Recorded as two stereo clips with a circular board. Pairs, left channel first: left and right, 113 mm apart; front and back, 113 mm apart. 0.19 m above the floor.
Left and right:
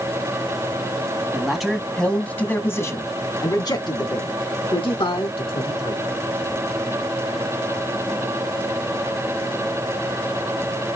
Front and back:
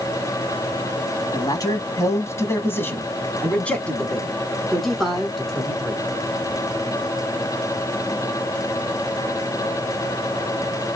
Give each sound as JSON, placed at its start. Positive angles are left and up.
{"t": 1.3, "sound": "a man speaking", "azimuth_deg": -10, "distance_m": 1.5}